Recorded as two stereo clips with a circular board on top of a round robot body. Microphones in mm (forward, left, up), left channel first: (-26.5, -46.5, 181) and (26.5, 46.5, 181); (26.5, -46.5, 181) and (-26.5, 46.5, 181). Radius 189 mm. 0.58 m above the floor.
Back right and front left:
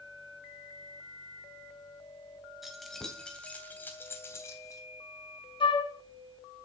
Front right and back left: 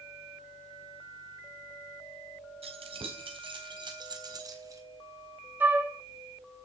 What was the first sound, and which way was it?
Keys jangling, 150° left.